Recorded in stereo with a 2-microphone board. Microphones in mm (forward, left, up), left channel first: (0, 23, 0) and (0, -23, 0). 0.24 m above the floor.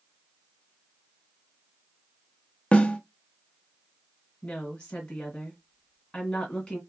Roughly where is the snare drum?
Left.